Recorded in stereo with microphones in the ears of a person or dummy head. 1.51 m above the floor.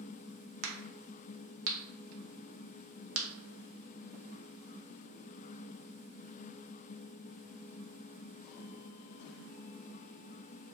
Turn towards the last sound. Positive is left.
turn(degrees=-70)  # may be behind; listen again after turning